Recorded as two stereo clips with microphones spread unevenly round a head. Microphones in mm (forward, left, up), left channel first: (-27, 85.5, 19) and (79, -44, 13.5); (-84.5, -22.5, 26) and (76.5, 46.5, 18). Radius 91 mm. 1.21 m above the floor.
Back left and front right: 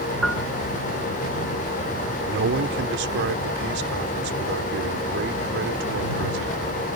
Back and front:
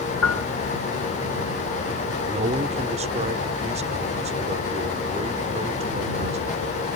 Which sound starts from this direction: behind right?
A piano, at 0.2 s.